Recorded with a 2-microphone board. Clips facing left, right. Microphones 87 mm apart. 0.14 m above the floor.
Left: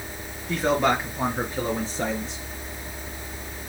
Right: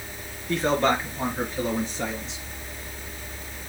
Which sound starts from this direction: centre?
A man speaking, at 0.5 s.